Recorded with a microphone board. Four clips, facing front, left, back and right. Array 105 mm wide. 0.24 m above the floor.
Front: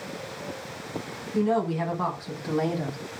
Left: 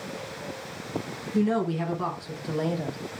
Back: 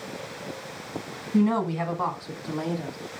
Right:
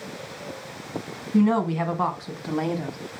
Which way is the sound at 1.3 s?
120° right.